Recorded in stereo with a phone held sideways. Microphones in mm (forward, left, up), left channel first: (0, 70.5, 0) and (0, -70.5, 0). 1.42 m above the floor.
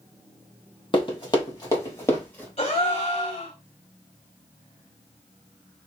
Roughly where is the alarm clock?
No alarm clock in this recording.